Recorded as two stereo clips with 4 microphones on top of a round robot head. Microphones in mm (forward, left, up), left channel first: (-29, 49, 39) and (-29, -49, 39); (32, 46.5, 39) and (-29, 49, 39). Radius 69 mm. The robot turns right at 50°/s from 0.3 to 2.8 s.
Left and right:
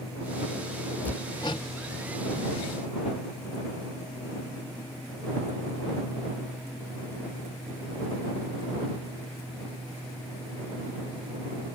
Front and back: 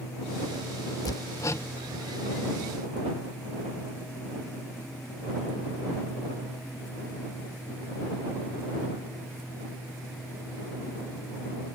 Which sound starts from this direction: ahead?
Hammering, at 1.1 s.